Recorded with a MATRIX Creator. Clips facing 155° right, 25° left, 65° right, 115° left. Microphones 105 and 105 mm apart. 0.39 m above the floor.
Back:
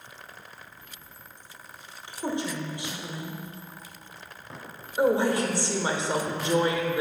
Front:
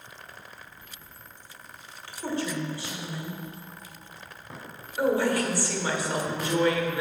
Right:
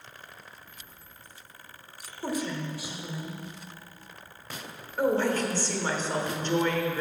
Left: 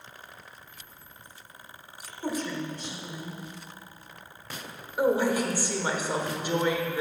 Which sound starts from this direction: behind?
A woman speaking, at 5.0 s.